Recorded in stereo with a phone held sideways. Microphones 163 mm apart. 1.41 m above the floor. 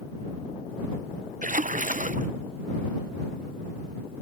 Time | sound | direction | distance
1.4 | a splash | 55° right (ahead or behind) | ?